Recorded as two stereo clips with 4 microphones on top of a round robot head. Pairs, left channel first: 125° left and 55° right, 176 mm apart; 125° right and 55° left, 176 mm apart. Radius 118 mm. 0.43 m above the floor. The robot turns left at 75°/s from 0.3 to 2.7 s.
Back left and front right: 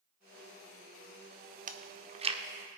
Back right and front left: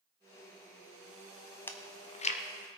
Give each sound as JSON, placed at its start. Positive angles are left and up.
{"t": 1.7, "sound": "chewing", "azimuth_deg": -50, "distance_m": 1.1}